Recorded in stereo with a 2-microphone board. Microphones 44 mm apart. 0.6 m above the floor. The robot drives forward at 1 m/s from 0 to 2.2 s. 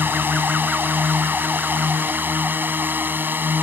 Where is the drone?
50° right (ahead or behind); by 3.6 s 45° right (ahead or behind).